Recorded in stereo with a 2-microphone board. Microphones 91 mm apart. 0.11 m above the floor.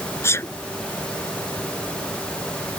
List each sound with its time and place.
0.2 s a sneeze: 30° left (ahead or behind)